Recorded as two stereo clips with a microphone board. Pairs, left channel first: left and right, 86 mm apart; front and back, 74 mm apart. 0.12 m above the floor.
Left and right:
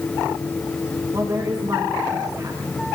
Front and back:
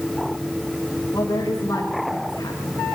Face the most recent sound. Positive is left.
turn(degrees=-40)